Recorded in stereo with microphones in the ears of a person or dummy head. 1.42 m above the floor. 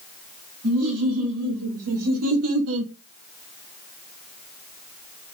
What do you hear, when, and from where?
0.6 s laughter: 90° right, 2.5 m; by 2.9 s 70° right (ahead or behind), 0.6 m